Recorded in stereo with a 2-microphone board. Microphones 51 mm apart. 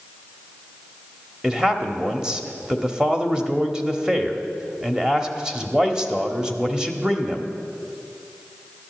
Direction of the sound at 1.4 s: 15° right (ahead or behind).